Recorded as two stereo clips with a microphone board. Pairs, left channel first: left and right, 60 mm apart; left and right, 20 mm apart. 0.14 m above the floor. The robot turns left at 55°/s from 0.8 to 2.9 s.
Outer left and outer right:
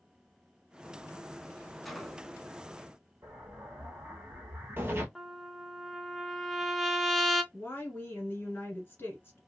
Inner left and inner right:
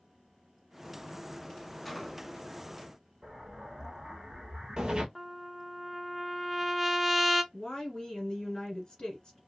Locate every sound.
1.9 s a gunshot: centre (ahead or behind), 0.5 m; by 2.5 s 10° right (ahead or behind), 0.5 m
3.2 s an explosion: 35° right (ahead or behind), 1.0 m
5.2 s a trumpet: 5° left (ahead or behind), 0.5 m
7.5 s a woman speaking: 35° left (ahead or behind), 1.6 m